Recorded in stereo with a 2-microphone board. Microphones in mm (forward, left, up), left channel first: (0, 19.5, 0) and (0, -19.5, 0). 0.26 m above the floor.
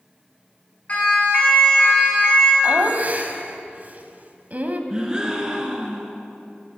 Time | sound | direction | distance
0.9 | a siren | 35° left (ahead or behind) | 4 m
2.6 | laughter | 40° right (ahead or behind) | 1.2 m
4.9 | a gasp | 20° right (ahead or behind) | 1.8 m